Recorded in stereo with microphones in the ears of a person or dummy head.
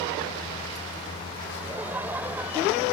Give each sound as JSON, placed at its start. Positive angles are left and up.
{"t": 1.6, "sound": "laughter", "side_deg": -15}